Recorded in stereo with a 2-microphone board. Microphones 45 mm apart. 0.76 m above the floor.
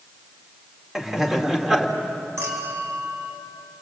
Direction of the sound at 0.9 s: 10° right (ahead or behind).